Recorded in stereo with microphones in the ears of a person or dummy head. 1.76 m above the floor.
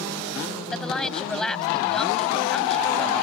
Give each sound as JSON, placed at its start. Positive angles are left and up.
{"t": 0.7, "sound": "a woman speaking", "side_deg": 0}